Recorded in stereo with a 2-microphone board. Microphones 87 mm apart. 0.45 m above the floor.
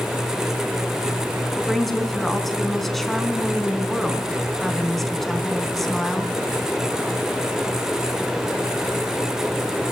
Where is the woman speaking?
5° left (ahead or behind), 4 m.